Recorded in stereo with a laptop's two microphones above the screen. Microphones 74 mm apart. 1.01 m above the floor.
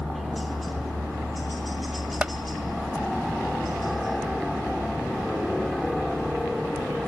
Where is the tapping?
15° right (ahead or behind).